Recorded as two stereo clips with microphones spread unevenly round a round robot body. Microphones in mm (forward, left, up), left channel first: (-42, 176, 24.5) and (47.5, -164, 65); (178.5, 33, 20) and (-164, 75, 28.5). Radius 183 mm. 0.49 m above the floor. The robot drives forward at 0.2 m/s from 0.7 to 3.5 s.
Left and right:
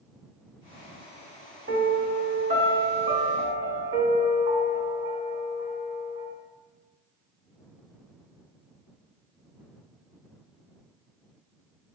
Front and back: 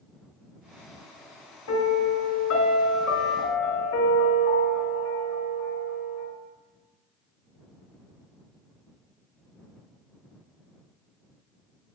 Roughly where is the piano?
Ahead.